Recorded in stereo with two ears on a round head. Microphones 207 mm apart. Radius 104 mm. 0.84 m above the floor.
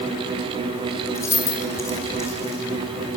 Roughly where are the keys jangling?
Centre.